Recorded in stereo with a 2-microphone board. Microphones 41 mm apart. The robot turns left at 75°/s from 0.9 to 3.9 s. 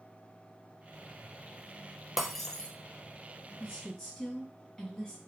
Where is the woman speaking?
20° left (ahead or behind), 1.8 m; by 5.2 s 15° left (ahead or behind), 1.8 m.